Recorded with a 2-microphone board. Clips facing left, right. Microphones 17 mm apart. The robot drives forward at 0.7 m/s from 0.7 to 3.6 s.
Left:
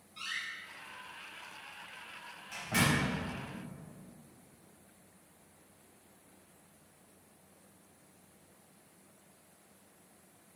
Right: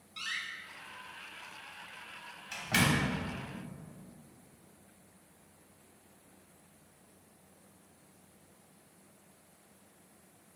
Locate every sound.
0.2 s a door slam: 55° right (ahead or behind), 2.5 m; by 3.1 s 80° right, 2.0 m